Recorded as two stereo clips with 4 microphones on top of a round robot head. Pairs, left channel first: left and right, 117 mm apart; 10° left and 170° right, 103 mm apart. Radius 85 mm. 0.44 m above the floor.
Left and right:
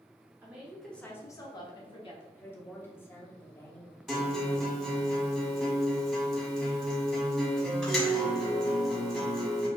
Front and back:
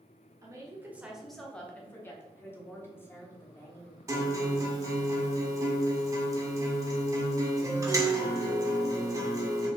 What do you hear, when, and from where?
0.4 s a woman speaking: 150° right, 1.4 m; by 2.2 s 70° left, 2 m
2.4 s a woman speaking: 45° left, 1.4 m
4.1 s a guitar: straight behind, 1.6 m